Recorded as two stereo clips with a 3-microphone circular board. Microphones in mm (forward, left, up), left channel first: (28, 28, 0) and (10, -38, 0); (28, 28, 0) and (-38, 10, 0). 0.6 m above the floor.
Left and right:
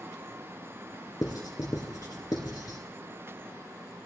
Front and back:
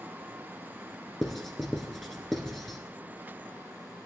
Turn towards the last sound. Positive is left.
turn(degrees=100)